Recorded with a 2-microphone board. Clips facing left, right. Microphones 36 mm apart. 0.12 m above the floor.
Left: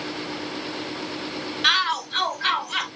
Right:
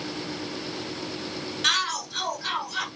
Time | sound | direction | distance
1.6 | a shout | 20° left (ahead or behind) | 1.4 m